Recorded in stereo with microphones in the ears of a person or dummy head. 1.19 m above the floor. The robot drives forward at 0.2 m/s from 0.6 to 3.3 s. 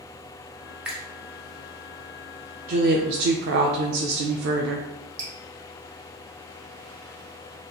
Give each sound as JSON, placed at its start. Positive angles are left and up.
{"t": 0.8, "sound": "a finger snap", "side_deg": -5, "distance_m": 0.9}
{"t": 2.7, "sound": "a woman speaking", "side_deg": -50, "distance_m": 0.6}
{"t": 5.2, "sound": "dripping", "side_deg": -45, "distance_m": 1.6}